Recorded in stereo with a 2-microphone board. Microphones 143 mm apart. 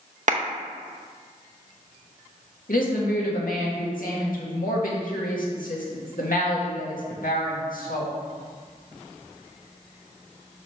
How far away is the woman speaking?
About 1.6 m.